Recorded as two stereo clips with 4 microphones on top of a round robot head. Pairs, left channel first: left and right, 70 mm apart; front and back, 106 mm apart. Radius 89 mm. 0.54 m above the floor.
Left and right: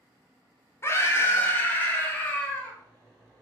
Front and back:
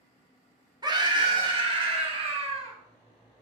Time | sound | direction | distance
0.8 | a scream | 135° left | 1.2 m